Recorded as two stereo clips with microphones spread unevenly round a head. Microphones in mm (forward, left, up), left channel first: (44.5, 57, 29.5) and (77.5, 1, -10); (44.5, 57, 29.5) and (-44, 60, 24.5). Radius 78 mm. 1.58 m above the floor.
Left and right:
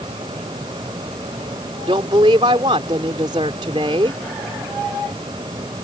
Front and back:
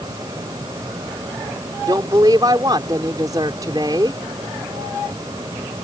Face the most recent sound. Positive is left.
turn(degrees=-115)